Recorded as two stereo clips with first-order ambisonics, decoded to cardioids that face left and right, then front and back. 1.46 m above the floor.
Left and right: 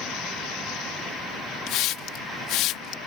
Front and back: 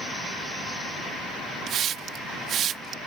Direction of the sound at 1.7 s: 125° left.